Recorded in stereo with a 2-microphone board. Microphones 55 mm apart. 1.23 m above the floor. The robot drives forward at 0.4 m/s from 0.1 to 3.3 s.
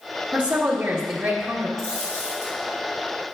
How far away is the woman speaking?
About 1.2 m.